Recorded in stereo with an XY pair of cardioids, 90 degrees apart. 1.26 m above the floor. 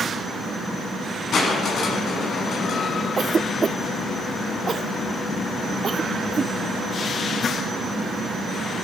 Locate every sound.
1.3 s crushing: 65° left, 6 m
3.2 s a cough: 40° right, 0.6 m